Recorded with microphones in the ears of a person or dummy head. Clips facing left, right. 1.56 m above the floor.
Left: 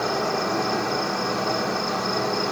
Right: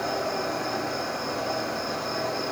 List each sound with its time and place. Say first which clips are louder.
0.0 s an insect: left 3 dB; 70° left (ahead or behind), 1.4 m